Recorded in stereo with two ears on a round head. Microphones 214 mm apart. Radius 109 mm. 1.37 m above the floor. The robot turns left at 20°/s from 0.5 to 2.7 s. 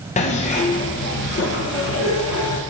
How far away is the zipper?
About 0.9 m.